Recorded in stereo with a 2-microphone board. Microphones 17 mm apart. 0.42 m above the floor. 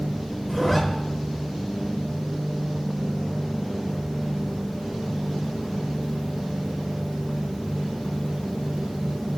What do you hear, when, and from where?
0.5 s a zipper: centre (ahead or behind), 0.5 m